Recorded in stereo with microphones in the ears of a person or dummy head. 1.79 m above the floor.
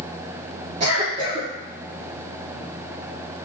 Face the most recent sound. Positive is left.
turn(degrees=-40)  # may be behind; listen again after turning